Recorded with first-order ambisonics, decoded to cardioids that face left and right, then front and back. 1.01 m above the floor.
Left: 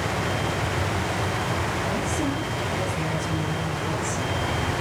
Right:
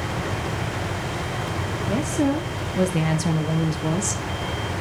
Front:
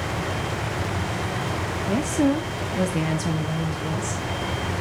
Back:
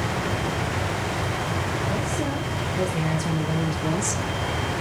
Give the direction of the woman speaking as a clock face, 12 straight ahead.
1 o'clock.